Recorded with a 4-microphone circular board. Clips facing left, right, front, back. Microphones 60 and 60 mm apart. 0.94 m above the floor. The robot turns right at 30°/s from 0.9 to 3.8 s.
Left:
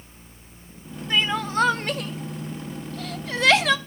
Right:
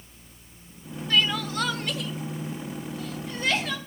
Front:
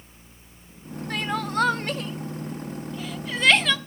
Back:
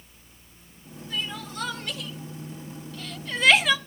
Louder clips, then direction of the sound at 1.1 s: Left 2 dB, front 7 dB; 20° left.